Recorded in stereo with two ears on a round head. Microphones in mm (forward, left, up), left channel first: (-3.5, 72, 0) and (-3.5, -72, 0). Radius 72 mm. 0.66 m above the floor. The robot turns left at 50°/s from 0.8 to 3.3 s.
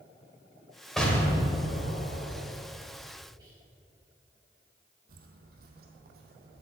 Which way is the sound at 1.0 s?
175° left.